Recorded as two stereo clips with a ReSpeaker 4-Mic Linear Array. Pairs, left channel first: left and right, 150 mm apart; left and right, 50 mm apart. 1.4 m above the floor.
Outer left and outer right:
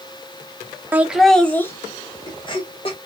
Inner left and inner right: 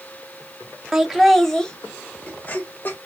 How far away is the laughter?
About 0.9 m.